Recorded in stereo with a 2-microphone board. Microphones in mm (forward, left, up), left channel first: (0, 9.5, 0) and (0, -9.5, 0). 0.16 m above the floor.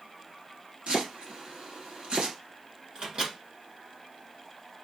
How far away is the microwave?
About 1.9 m.